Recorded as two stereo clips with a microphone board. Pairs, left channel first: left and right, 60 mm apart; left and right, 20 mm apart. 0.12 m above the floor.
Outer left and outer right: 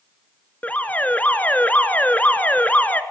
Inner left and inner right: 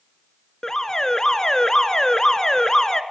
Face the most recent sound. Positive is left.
turn(degrees=25)  # may be behind; listen again after turning